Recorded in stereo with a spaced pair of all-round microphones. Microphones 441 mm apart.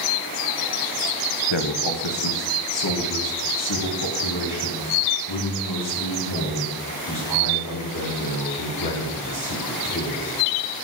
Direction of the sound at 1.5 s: 75° left (ahead or behind).